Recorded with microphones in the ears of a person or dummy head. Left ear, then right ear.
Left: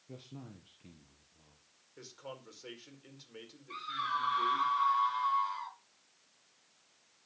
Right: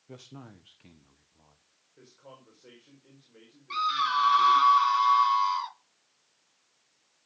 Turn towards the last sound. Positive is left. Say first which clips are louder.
# right 10 dB
turn(degrees=-45)  # may be behind; listen again after turning